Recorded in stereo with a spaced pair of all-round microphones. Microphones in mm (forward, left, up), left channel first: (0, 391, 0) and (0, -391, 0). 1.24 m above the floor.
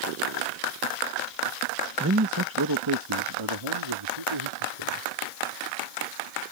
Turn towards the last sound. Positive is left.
turn(degrees=-40)  # may be behind; listen again after turning